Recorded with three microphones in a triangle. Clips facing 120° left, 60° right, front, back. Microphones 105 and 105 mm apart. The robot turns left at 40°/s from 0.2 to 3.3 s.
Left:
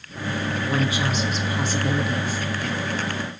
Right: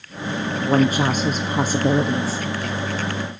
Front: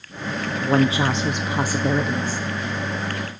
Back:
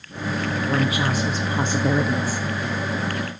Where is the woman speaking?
35° right, 1.3 m; by 2.4 s 110° right, 1.3 m.